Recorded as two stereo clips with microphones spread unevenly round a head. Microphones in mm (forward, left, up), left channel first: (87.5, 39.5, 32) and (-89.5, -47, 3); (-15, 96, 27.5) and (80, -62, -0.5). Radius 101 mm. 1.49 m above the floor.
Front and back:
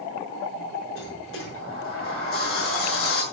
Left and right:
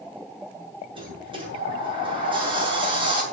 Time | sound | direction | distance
0.9 | a sliding door | 5° left | 7 m